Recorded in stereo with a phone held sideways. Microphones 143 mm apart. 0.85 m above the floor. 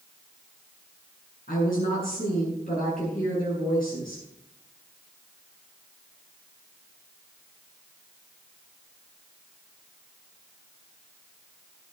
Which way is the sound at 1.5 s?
90° left.